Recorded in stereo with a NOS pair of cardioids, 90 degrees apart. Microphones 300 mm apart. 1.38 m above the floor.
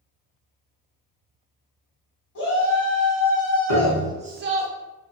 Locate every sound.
2.4 s a shout: 50° left, 1.0 m; by 4.7 s 60° right, 0.6 m
3.7 s a piano: 60° left, 1.3 m